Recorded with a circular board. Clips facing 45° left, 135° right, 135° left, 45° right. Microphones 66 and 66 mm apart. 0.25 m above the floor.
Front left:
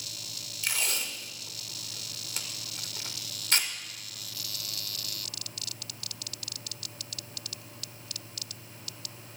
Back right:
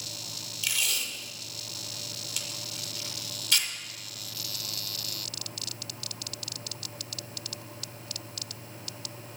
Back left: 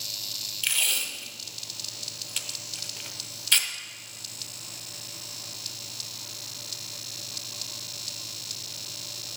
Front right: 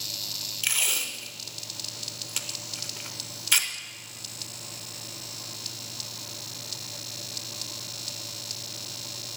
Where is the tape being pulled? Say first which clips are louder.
Even, even; 30° left, 0.9 m.